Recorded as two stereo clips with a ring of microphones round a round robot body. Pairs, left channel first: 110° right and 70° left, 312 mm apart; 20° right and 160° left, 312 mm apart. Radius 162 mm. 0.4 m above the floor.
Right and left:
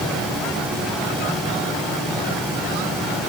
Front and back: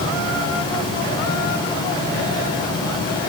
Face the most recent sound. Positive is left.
No sound to turn to.